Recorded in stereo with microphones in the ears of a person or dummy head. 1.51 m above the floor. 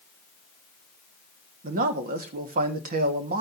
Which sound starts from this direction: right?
A man speaking, at 1.6 s.